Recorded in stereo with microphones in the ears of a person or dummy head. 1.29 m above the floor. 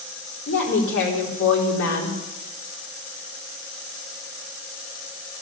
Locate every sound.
0.5 s a woman speaking: 65° left (ahead or behind), 4 m